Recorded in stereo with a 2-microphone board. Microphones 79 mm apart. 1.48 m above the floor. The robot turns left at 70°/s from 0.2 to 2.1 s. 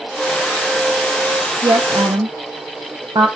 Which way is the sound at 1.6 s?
40° right (ahead or behind).